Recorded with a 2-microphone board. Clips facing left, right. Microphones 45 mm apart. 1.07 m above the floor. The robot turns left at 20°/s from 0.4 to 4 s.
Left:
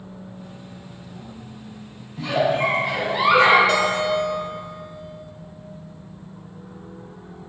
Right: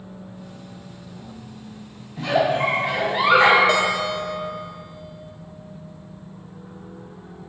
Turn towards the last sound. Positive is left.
turn(degrees=-20)  # may be behind; listen again after turning